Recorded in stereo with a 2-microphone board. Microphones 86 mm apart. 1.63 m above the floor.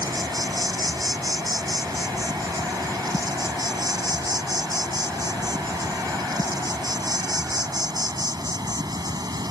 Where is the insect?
50° right (ahead or behind).